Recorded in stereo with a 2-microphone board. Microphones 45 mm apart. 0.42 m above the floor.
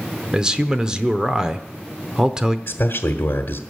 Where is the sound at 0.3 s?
15° right (ahead or behind), 0.8 m.